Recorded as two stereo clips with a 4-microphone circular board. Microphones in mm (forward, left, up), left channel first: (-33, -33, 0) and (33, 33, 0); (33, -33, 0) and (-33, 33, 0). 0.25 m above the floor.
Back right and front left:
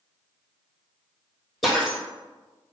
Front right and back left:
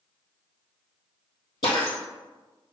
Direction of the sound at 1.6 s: 45° right.